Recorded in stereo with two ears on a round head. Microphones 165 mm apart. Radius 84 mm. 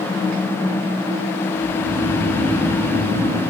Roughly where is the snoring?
Right.